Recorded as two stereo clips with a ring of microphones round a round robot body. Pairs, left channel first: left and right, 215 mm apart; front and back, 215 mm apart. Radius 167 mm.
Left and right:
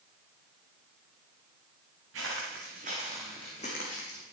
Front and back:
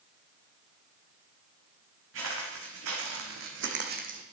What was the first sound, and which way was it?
Footsteps, 135° right.